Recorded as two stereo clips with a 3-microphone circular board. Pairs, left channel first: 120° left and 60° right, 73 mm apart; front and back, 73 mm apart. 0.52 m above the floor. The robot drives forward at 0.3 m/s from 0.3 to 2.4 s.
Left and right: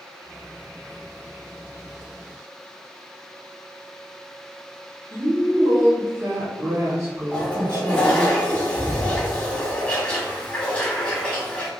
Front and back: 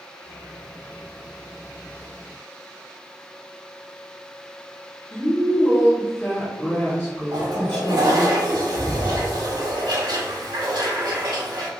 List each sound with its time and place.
5.1 s a woman speaking: 60° right, 1.5 m
7.3 s a toilet flushing: 165° right, 1.0 m